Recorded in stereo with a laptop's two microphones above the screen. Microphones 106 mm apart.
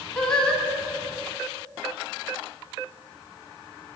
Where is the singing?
10° left (ahead or behind), 1.2 m.